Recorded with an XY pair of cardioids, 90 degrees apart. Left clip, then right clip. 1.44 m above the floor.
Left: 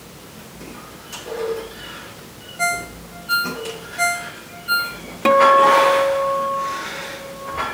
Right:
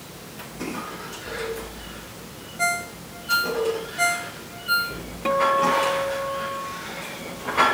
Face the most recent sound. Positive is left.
turn(degrees=70)